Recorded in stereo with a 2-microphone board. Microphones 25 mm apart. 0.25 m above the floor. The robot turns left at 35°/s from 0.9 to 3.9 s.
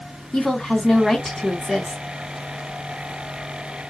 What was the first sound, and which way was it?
A woman speaking, 25° left.